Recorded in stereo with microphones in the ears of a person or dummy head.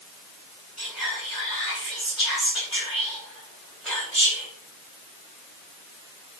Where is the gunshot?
No gunshot in this recording.